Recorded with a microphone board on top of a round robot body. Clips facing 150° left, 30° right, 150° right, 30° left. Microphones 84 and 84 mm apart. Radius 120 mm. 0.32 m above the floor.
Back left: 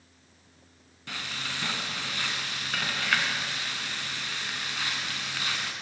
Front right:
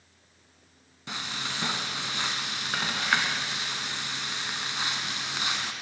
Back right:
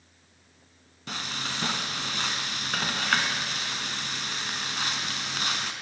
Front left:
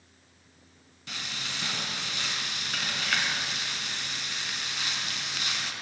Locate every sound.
1.1 s frying: 100° right, 2 m